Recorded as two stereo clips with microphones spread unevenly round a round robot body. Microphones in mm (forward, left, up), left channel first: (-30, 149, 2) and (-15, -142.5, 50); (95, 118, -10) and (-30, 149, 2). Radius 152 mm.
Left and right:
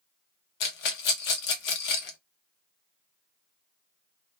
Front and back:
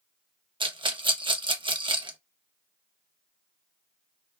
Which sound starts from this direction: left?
A rattle, at 0.6 s.